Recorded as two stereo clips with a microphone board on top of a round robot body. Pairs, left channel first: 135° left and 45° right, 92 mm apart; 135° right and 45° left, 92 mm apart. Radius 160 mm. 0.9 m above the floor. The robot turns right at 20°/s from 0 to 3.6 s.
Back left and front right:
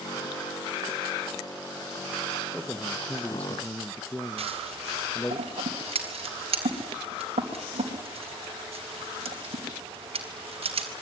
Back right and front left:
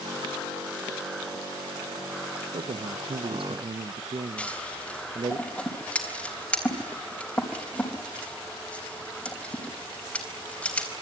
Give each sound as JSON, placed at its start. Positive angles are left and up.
{"t": 2.5, "sound": "a man speaking", "azimuth_deg": 40, "distance_m": 1.1}
{"t": 4.4, "sound": "scissors", "azimuth_deg": -55, "distance_m": 4.0}